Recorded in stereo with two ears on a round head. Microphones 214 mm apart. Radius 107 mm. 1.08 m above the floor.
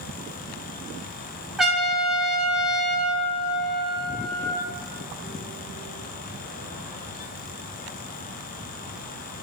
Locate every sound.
1.6 s a trumpet: centre (ahead or behind), 0.6 m